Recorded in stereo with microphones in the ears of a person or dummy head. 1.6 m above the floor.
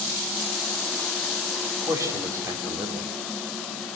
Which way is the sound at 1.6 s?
20° right (ahead or behind).